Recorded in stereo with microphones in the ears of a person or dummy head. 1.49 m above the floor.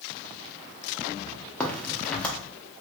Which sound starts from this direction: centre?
A crack, at 1.6 s.